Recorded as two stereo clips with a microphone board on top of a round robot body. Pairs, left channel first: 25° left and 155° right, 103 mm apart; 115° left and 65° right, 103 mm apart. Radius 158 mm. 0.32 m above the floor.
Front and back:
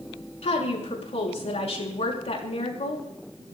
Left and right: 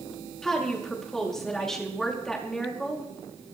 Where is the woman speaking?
25° left, 6.5 m.